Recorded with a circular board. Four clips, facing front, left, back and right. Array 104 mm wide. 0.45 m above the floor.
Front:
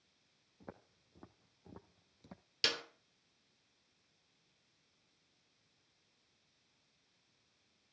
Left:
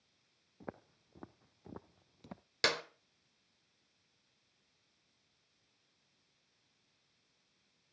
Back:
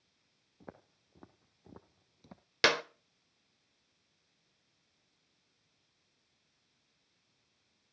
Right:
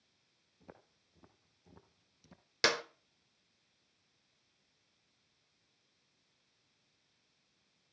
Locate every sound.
0.6 s footsteps: 100° left, 1.8 m; by 2.4 s 95° left, 0.8 m
2.6 s a clap: 170° right, 1.0 m